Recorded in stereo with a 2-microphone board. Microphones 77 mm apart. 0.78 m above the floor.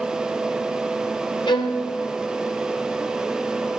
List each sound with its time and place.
1.5 s a violin: 75° left (ahead or behind), 3.5 m